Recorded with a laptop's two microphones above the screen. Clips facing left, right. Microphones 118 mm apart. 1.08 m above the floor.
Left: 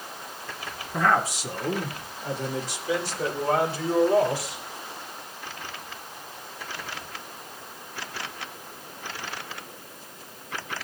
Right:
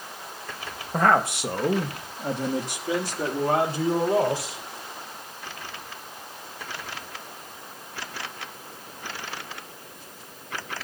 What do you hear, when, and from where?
0.9 s a man speaking: 45° right (ahead or behind), 1.4 m; by 4.6 s 40° right (ahead or behind), 4.5 m